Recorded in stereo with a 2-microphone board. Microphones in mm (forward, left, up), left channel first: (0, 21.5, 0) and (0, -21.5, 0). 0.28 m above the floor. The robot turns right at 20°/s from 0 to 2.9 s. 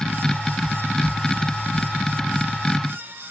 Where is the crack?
No crack in this recording.